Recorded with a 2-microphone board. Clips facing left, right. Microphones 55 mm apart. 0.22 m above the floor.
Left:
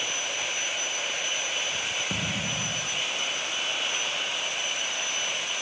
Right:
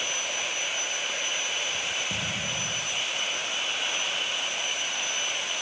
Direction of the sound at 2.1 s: 35° left (ahead or behind).